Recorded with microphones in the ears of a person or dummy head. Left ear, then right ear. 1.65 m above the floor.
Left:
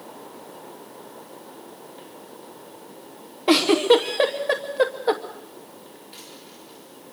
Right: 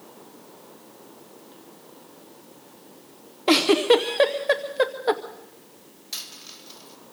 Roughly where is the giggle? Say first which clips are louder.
Left 1 dB; centre.